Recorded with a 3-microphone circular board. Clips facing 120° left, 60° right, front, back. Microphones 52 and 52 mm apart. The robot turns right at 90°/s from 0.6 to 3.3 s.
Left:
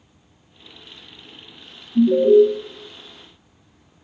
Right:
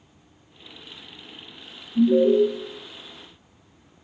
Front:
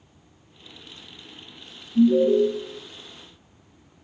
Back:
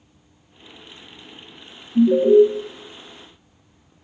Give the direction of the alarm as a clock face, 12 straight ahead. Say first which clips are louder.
Left 4 dB, back 4 dB; 6 o'clock.